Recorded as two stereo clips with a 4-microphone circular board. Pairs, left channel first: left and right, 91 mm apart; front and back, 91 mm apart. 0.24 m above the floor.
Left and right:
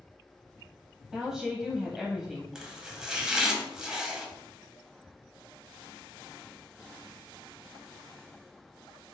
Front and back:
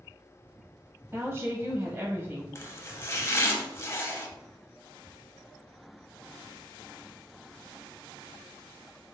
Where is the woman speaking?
165° right, 1.0 m.